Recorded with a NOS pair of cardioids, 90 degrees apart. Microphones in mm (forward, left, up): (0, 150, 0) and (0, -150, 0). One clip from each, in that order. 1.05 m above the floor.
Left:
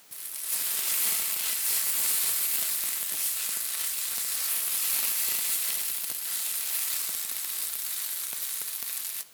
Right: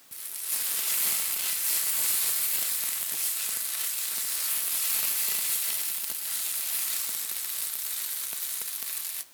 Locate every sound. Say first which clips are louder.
0.1 s frying: even; straight ahead, 1.1 m